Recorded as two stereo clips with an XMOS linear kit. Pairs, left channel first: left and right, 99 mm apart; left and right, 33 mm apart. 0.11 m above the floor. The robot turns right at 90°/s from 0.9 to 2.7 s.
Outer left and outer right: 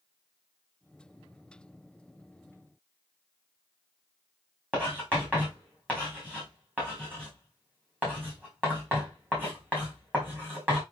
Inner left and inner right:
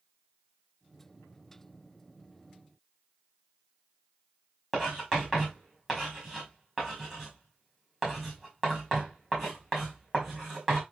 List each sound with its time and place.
4.7 s writing: 15° right (ahead or behind), 5 m